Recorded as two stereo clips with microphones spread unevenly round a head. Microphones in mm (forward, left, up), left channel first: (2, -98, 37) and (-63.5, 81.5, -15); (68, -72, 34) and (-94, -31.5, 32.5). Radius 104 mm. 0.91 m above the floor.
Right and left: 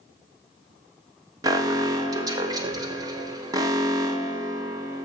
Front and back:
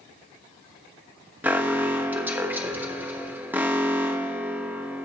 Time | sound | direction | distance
1.4 | an alarm | 95° left | 0.8 m